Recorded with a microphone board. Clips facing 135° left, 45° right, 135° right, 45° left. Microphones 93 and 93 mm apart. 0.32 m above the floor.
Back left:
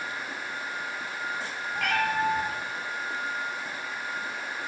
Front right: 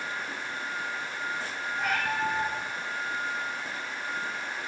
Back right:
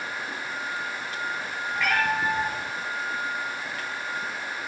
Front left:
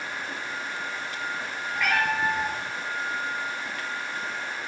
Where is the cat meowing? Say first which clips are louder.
Back left 3 dB, even; 130° left, 4 m.